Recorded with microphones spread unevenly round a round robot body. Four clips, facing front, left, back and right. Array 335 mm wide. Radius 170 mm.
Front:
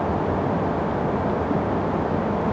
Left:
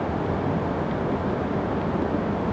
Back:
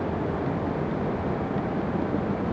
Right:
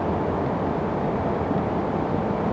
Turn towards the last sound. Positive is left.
No sound to turn to.